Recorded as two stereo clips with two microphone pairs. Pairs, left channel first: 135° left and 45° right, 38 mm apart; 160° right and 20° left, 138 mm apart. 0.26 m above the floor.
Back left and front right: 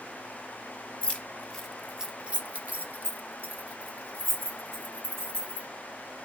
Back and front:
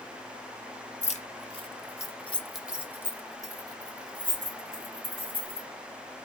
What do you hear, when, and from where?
1.0 s keys jangling: 170° right, 0.9 m; by 5.7 s 25° right, 2.5 m